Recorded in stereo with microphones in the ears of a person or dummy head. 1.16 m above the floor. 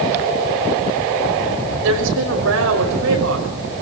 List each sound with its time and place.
1.8 s a woman speaking: 80° right, 5.5 m